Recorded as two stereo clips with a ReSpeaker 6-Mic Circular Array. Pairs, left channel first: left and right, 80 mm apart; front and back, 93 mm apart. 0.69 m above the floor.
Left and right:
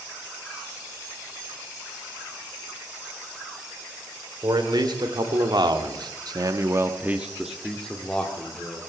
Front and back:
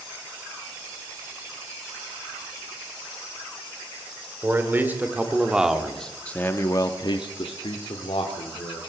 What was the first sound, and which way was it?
A man speaking, 115° right.